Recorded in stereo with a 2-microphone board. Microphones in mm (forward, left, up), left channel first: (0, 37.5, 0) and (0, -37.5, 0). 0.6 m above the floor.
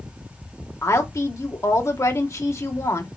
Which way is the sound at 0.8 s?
40° left (ahead or behind).